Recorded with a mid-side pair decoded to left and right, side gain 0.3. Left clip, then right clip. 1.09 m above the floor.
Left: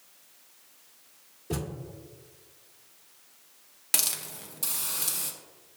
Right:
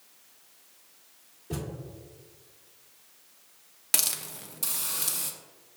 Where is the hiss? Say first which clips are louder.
Even; 15° right, 0.6 m.